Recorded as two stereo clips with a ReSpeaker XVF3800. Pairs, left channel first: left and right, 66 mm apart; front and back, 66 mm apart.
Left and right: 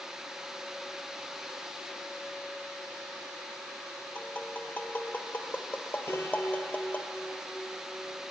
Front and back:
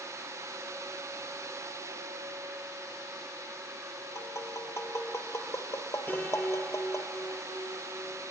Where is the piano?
50° left, 3 m.